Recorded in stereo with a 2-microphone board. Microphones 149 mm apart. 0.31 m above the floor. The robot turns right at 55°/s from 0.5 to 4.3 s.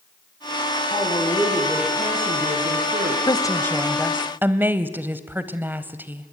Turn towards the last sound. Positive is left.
turn(degrees=-165)